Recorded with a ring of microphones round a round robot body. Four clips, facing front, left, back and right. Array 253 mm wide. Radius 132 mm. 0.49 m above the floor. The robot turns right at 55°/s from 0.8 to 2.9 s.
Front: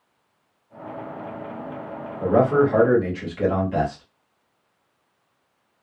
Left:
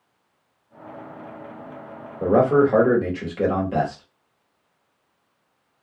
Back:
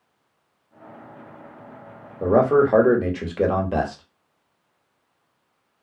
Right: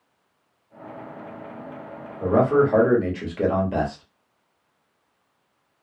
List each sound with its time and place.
2.2 s a man speaking: 140° left, 1.3 m; by 4.0 s straight behind, 1.3 m